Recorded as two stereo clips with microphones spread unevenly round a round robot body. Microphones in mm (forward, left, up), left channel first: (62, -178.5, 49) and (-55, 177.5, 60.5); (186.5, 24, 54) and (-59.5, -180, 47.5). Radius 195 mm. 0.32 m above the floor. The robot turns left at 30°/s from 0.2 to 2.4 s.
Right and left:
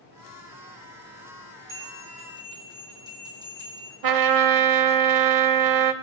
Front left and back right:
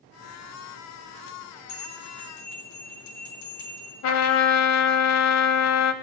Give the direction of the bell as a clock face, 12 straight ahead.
10 o'clock.